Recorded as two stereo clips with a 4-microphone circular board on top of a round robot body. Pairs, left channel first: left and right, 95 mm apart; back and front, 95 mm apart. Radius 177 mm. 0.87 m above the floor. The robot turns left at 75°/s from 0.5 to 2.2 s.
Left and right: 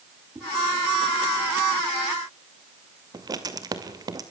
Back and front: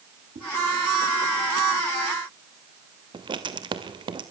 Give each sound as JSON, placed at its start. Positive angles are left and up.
{"t": 0.3, "sound": "a whoosh", "azimuth_deg": -15, "distance_m": 9.0}
{"t": 3.1, "sound": "writing", "azimuth_deg": -40, "distance_m": 2.0}